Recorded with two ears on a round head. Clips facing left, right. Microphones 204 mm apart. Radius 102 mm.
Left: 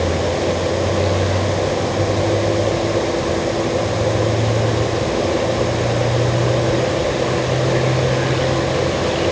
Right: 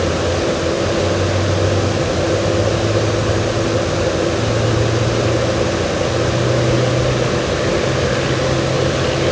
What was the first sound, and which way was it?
Only background noise.